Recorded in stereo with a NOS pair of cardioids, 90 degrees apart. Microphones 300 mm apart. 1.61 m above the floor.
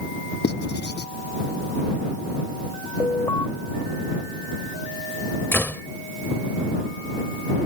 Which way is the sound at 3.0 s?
10° left.